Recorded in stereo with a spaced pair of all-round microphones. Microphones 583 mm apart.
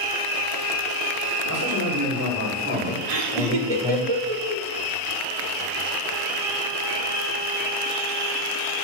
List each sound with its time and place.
1.4 s a man speaking: 40° right (ahead or behind), 3 m; by 4.1 s centre (ahead or behind), 4 m
3.1 s laughter: 75° right (ahead or behind), 1.4 m